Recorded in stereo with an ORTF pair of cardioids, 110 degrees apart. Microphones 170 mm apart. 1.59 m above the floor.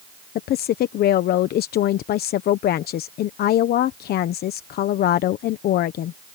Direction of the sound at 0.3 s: 65° left.